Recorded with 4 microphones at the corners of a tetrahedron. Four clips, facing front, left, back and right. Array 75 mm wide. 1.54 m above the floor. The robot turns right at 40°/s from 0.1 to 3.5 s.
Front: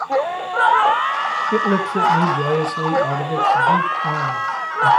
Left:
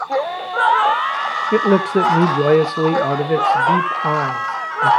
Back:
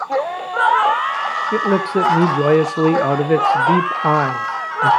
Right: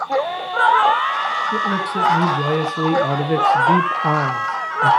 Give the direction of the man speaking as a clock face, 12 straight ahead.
9 o'clock.